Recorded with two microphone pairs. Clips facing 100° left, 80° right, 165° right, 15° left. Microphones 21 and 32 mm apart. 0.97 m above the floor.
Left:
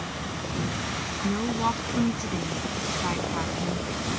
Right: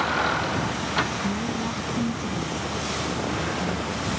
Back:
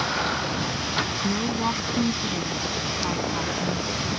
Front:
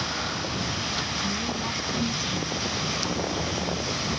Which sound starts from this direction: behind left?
A woman speaking, at 1.2 s.